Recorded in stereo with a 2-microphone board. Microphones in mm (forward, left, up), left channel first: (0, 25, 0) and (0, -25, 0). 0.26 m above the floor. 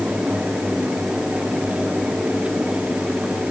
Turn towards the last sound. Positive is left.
No sound to turn to.